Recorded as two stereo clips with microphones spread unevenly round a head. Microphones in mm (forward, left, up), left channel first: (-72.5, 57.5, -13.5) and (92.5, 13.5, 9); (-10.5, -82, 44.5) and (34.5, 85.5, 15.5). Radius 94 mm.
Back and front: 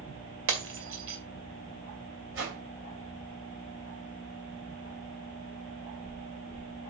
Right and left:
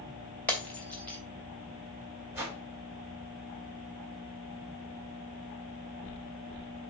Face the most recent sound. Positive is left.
turn(degrees=0)